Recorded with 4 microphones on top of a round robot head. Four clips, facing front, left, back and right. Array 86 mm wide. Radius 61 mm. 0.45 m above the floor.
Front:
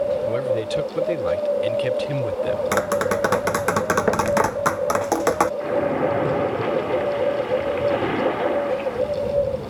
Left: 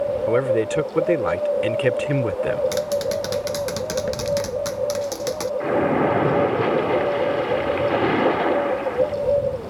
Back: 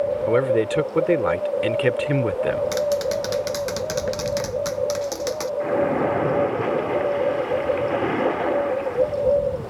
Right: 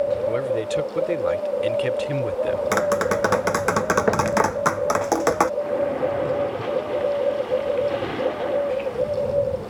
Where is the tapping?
45° right.